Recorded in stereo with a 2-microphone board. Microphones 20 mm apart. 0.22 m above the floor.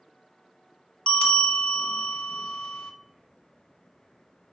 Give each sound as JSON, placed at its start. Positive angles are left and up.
{"t": 1.1, "sound": "a bell", "side_deg": 60, "distance_m": 0.6}